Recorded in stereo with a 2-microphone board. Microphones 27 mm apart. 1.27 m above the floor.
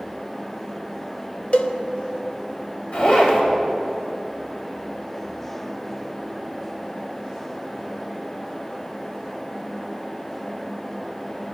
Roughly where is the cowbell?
Left.